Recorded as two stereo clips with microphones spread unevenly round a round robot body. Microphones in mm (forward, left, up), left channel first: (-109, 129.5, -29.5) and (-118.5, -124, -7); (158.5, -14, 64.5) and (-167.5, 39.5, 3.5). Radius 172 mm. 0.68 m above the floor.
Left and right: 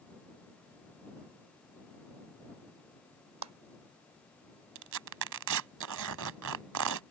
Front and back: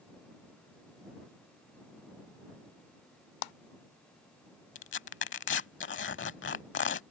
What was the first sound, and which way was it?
A clap, 35° right.